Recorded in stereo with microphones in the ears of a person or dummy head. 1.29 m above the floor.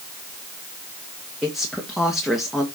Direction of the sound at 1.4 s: Centre (ahead or behind).